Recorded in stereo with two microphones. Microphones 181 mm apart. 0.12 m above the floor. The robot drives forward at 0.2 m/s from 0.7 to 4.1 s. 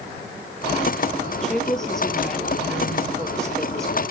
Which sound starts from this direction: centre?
A woman speaking, at 1.4 s.